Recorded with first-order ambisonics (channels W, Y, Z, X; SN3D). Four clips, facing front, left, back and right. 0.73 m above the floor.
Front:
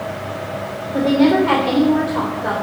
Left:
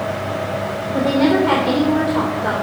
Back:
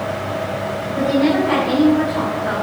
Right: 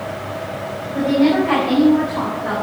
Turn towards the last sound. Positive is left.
turn(degrees=55)